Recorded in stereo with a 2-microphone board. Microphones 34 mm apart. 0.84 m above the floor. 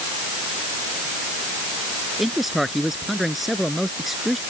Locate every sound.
2.2 s a man speaking: 5° right (ahead or behind)